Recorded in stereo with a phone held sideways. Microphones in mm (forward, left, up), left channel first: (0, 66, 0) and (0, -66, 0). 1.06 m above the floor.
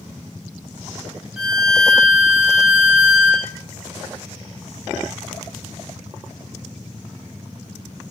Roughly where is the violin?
Centre.